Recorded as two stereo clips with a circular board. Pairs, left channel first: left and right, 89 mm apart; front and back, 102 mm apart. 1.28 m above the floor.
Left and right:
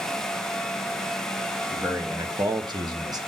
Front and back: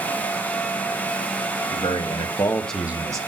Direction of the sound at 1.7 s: 20° right.